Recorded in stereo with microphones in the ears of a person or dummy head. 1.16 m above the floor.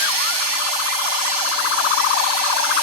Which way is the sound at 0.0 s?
65° right (ahead or behind).